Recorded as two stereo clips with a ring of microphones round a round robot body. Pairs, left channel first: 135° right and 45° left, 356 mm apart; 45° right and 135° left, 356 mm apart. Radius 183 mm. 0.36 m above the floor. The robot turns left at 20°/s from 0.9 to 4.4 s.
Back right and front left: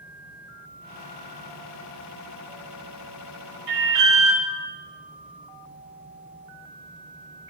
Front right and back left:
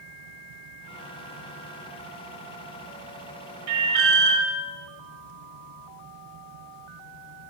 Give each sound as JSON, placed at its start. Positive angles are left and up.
{"t": 3.7, "sound": "an alarm", "azimuth_deg": 100, "distance_m": 1.1}